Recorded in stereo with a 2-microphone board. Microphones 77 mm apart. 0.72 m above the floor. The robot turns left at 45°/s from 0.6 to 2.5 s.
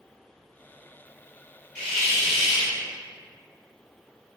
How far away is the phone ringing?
No phone ringing in this recording.